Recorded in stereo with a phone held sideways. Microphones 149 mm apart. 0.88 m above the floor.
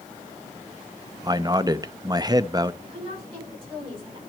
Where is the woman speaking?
40° right (ahead or behind), 9 m.